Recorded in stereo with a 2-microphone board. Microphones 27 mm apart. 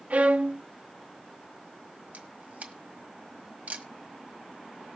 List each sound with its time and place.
0.1 s a violin: 55° right (ahead or behind), 0.9 m
2.1 s a camera shutter: 60° right (ahead or behind), 1.5 m